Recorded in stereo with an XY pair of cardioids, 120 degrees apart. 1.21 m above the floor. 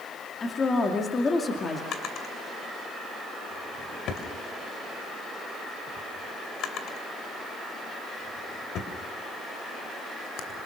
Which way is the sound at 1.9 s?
65° left.